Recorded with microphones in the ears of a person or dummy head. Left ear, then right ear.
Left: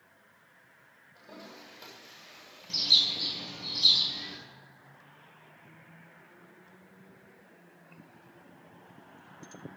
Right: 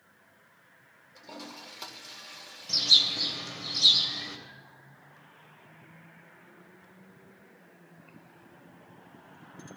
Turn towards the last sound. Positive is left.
turn(degrees=-65)  # may be behind; listen again after turning